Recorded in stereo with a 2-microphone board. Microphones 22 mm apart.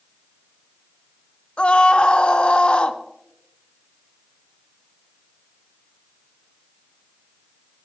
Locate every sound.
1.6 s a scream: 50° left (ahead or behind), 1.1 m